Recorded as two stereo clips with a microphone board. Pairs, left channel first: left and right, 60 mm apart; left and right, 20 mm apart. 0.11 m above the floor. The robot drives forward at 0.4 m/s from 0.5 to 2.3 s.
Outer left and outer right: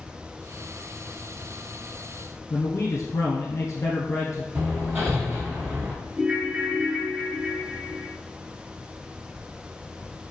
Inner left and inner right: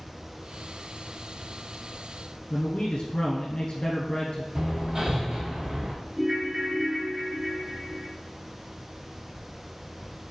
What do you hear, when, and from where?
2.5 s a man speaking: 55° left (ahead or behind), 1.7 m
4.5 s hammering: 50° right (ahead or behind), 1.9 m
6.2 s a ringtone: 15° right (ahead or behind), 1.0 m